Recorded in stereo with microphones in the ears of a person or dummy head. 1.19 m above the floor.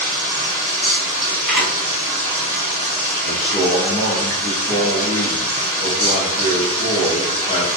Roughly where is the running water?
Right.